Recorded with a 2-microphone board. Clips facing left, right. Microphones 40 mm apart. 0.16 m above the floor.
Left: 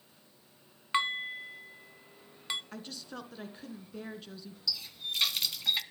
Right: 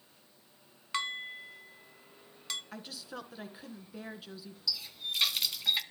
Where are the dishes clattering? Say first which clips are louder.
Left 5 dB; 25° left (ahead or behind), 0.7 m.